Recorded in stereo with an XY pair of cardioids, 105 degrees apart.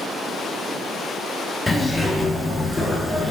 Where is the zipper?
15° left, 2.5 m.